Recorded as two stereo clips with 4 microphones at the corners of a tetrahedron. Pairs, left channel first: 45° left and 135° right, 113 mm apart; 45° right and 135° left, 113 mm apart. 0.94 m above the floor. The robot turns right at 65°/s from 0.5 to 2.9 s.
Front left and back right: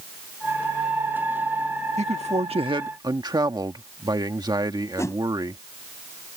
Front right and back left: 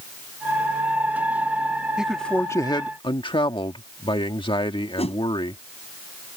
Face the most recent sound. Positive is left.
turn(degrees=-20)